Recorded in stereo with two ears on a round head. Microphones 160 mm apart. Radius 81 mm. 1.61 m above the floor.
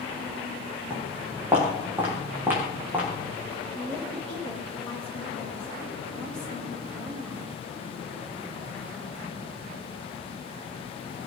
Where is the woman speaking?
5° left (ahead or behind), 9.5 m.